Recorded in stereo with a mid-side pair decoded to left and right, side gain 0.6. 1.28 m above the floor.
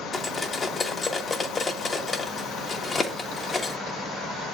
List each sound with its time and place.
0.1 s cutlery clinking: 25° left, 1.1 m